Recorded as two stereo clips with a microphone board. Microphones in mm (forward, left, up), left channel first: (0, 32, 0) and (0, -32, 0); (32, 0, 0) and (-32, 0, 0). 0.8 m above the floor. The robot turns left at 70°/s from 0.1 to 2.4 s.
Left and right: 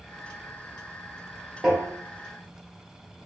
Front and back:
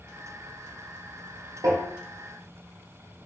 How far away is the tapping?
About 1.0 m.